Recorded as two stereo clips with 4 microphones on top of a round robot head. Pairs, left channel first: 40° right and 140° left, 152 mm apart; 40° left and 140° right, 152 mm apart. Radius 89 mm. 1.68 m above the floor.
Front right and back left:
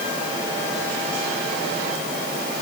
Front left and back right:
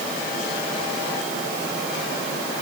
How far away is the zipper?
No zipper in this recording.